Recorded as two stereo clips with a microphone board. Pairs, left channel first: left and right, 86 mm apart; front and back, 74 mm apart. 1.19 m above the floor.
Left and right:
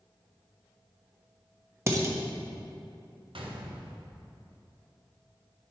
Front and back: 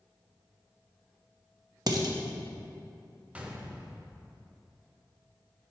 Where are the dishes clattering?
150° right, 0.9 m.